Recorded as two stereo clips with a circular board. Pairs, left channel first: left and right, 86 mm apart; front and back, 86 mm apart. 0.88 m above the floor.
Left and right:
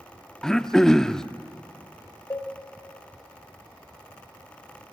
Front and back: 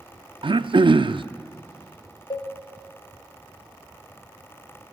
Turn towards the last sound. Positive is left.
turn(degrees=30)